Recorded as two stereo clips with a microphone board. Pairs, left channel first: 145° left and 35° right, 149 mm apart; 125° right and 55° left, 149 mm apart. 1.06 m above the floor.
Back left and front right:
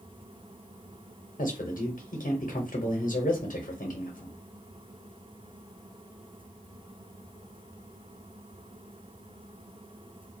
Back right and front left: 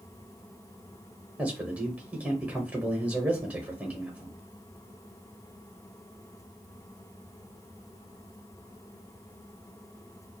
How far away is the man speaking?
About 0.8 m.